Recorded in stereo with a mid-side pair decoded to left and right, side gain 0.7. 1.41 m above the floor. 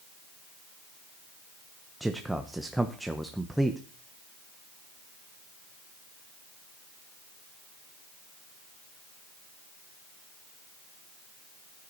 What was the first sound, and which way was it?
A man speaking, 5° right.